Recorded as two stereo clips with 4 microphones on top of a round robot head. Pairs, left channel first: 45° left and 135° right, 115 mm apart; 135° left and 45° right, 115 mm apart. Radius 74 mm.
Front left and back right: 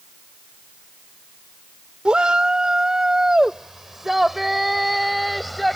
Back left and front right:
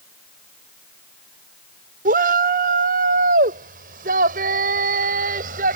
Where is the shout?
50° right; by 5.8 s 45° right.